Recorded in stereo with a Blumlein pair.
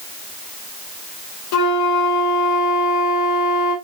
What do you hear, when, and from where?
1.5 s a flute: 45° left, 1.6 m